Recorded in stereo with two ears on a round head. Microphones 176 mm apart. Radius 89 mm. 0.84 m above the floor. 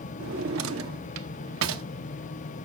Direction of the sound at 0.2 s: 75° right (ahead or behind).